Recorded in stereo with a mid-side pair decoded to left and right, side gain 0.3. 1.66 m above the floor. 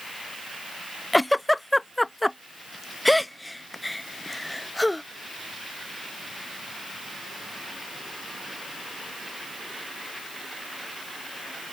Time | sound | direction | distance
1.1 | a giggle | 15° left | ?